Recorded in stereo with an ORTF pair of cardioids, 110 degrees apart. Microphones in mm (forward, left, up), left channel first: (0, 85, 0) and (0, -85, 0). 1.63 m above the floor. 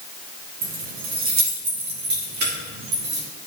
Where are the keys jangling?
60° right, 1.6 m; by 3.2 s 80° right, 4 m.